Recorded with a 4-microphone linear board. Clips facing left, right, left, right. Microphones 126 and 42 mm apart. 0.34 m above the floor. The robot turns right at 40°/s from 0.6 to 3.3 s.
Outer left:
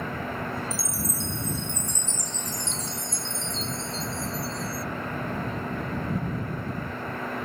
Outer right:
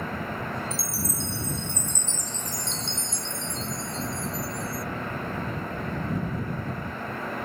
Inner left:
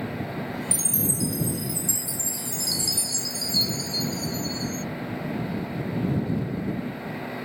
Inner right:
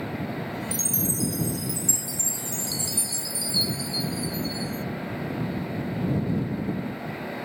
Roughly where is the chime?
Behind right.